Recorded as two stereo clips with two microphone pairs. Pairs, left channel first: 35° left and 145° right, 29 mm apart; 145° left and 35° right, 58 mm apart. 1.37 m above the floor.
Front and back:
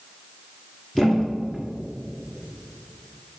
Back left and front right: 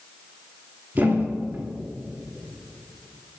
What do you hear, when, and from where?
0.9 s a thud: 20° right, 1.4 m